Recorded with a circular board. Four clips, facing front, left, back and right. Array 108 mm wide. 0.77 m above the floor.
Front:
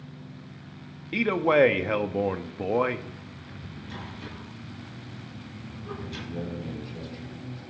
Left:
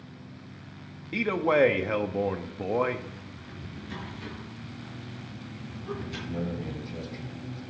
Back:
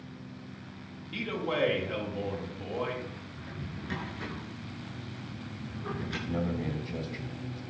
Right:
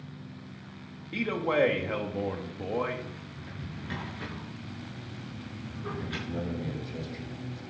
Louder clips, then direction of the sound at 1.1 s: Left 3 dB, front 11 dB; 20° left.